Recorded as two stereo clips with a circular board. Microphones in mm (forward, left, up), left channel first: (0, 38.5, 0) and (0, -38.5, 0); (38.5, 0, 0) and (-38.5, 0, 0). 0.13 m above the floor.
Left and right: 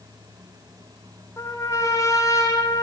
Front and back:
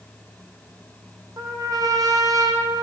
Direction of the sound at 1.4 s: 140° left.